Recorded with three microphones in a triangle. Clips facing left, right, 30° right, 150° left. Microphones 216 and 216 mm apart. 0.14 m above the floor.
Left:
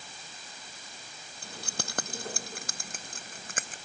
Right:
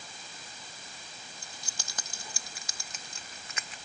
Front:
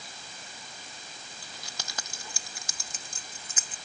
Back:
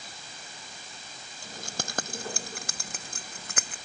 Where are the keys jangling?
110° left; by 3.8 s 130° left.